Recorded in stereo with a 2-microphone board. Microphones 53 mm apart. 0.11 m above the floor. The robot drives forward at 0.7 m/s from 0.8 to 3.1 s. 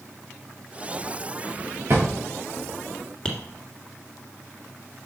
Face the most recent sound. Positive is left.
turn(degrees=15)  # may be behind; listen again after turning